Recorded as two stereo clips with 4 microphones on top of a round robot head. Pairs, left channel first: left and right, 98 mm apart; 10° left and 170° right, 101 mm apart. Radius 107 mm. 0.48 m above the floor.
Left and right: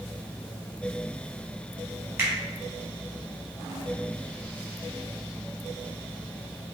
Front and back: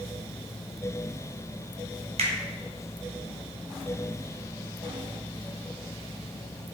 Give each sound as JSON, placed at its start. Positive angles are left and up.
{"t": 2.2, "sound": "a finger snap", "azimuth_deg": -160, "distance_m": 1.7}